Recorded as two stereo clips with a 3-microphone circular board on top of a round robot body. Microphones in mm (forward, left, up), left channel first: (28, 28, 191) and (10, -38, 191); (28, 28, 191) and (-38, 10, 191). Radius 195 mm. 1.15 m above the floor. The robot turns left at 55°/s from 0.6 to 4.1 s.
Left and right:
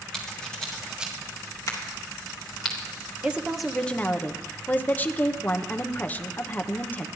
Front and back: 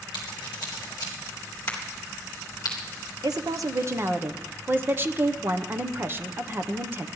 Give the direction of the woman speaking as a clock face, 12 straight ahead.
6 o'clock.